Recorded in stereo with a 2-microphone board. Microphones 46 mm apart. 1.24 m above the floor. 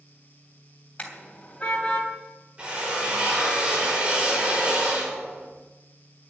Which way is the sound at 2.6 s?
25° right (ahead or behind).